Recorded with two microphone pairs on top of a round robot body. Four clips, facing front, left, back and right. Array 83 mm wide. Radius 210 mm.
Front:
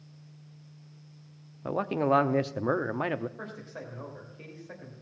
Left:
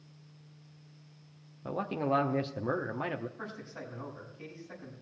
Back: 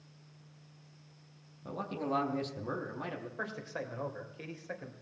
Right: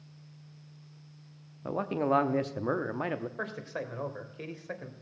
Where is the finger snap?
I don't hear a finger snap.